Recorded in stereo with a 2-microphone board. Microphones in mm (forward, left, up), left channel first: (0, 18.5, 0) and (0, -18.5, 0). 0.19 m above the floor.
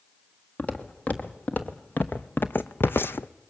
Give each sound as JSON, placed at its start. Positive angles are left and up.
{"t": 0.6, "sound": "footsteps", "side_deg": 45, "distance_m": 1.9}